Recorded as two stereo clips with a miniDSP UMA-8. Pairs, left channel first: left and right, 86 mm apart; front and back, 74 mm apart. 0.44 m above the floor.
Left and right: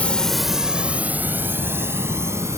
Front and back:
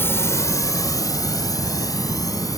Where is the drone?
30° left; by 2.6 s 35° right.